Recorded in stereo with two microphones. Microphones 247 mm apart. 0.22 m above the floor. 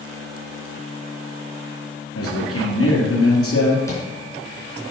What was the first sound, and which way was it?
A man speaking, 70° left (ahead or behind).